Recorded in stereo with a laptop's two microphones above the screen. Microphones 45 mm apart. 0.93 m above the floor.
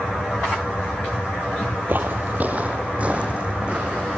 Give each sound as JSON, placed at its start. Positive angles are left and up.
{"t": 1.9, "sound": "footsteps", "side_deg": -50, "distance_m": 1.6}